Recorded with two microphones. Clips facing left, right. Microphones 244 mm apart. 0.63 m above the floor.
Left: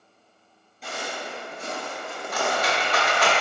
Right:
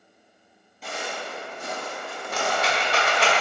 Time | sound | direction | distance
0.8 | footsteps | centre (ahead or behind) | 1.0 m
2.3 | a rattle | 30° right (ahead or behind) | 0.7 m